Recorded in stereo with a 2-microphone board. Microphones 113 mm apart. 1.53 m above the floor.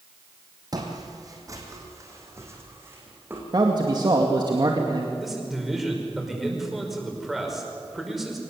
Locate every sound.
0.7 s footsteps: 40° right (ahead or behind), 3.5 m; by 3.4 s 20° right (ahead or behind), 4.5 m
3.5 s a man speaking: 40° right (ahead or behind), 2 m
5.2 s a man speaking: centre (ahead or behind), 5.5 m